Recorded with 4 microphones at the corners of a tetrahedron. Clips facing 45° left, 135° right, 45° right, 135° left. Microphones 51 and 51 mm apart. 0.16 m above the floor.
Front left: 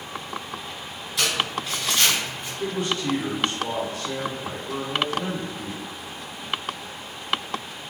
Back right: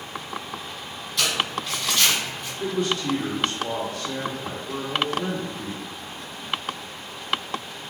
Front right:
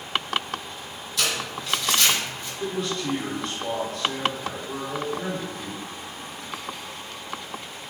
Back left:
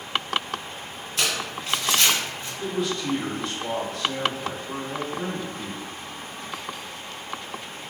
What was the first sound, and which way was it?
Crumpling, 125° left.